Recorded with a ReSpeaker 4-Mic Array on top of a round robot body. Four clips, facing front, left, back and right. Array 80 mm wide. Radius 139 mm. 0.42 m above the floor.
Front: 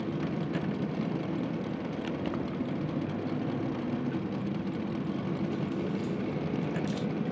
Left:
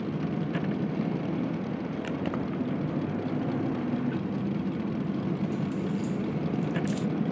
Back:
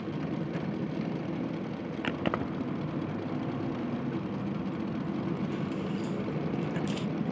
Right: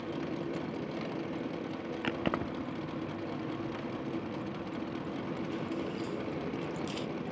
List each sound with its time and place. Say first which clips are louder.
0.0 s a vehicle: left 5 dB, front 1 dB; 80° left; by 7.3 s 90° left
2.0 s keys jangling: even, back 4 dB; 160° right